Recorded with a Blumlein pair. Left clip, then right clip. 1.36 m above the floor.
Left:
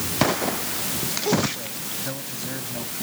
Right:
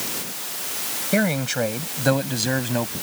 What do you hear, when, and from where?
1.1 s a man speaking: 40° right; by 2.9 s 30° right